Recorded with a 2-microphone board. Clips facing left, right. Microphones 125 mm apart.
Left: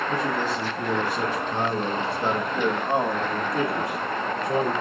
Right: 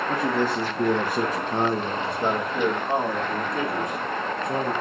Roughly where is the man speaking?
Right.